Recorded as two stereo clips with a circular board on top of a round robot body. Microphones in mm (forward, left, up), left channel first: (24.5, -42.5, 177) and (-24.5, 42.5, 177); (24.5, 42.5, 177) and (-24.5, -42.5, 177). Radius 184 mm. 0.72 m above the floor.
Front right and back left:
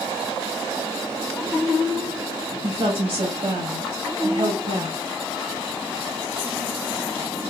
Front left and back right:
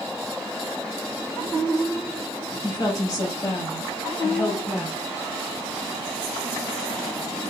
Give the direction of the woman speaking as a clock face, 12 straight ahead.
9 o'clock.